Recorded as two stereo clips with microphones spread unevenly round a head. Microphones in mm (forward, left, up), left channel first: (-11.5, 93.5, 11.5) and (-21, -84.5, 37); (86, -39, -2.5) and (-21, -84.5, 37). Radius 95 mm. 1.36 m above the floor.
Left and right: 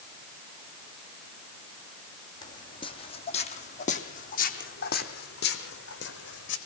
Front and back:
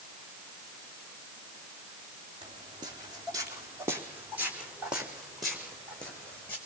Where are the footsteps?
160° left, 2.5 m; by 6.6 s 110° left, 3.5 m.